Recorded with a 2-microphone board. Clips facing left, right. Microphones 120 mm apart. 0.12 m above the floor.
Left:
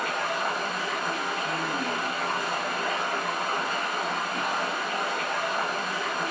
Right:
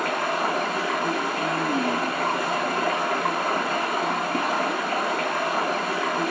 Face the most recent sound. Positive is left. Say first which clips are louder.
# right 4 dB
turn(degrees=-75)  # may be behind; listen again after turning